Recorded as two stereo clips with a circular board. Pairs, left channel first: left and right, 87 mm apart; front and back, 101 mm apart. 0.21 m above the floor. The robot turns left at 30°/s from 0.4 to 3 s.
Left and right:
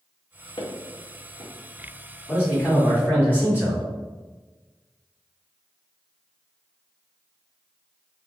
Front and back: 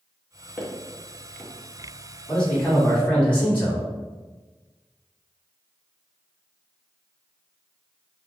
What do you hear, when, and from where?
0.6 s footsteps: 110° left, 1.6 m; by 1.5 s 80° left, 1.6 m
2.3 s a man speaking: 80° left, 1.8 m; by 3.9 s 60° left, 1.8 m